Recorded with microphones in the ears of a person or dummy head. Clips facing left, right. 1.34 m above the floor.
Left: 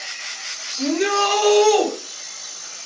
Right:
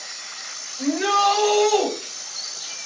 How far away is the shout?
About 4 m.